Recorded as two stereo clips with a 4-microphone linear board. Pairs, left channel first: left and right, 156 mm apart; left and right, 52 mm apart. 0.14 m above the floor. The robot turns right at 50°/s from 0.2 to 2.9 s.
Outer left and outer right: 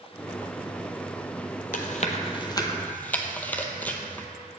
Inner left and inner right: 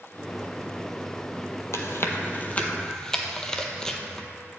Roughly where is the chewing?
Left.